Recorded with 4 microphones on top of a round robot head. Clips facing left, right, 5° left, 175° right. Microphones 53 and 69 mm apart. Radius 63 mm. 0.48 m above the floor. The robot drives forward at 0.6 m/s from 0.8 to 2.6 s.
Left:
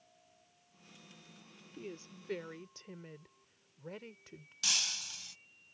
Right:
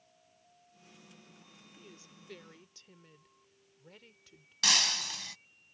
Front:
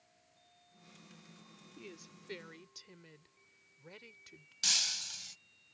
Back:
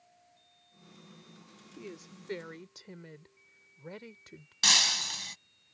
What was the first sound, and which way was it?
A woman speaking, 125° left.